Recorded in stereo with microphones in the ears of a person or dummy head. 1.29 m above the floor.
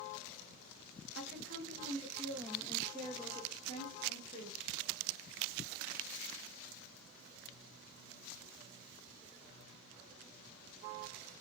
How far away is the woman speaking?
About 0.9 m.